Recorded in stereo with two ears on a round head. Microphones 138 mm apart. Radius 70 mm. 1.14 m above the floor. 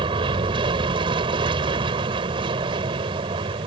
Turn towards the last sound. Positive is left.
turn(degrees=-35)  # may be behind; listen again after turning